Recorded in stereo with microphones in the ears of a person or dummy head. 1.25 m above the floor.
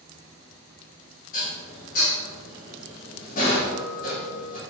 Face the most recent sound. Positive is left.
turn(degrees=45)  # may be behind; listen again after turning